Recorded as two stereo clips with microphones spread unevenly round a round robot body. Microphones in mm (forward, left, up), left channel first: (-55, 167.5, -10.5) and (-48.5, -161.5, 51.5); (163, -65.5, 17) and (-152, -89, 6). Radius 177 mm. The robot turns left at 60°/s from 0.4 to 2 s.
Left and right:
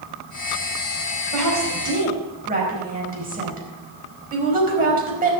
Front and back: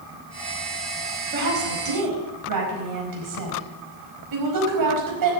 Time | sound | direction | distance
1.3 | a woman speaking | 115° right | 5 m